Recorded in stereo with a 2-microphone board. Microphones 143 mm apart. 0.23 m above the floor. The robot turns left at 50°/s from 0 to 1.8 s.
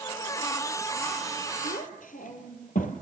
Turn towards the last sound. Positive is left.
turn(degrees=60)  # may be behind; listen again after turning